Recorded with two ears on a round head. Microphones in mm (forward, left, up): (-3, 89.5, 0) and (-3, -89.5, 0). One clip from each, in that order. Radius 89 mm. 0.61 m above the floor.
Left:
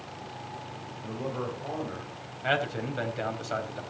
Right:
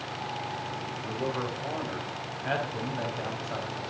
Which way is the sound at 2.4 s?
75° left (ahead or behind).